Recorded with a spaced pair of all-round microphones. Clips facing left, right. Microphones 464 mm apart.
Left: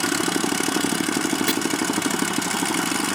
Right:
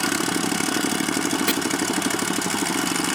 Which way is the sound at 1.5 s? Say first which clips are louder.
Even; 10° left (ahead or behind).